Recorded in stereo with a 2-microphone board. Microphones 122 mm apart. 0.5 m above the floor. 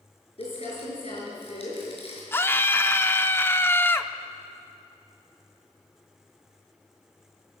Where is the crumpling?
55° left (ahead or behind), 6 m.